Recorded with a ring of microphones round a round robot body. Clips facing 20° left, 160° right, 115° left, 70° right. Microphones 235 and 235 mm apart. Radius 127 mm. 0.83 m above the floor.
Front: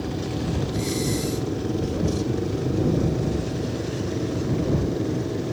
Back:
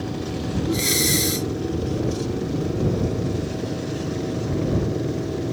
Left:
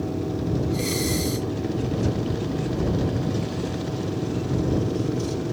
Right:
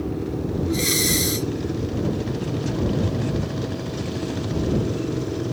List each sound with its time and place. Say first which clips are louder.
0.7 s breathing: back 4 dB, right 1 dB; 135° right